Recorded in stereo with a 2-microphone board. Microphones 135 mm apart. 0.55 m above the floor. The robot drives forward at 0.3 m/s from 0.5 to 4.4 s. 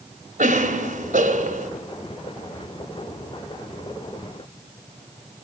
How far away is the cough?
About 2.5 m.